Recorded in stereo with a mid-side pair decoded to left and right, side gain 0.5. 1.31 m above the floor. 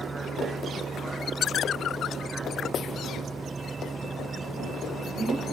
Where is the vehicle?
25° right.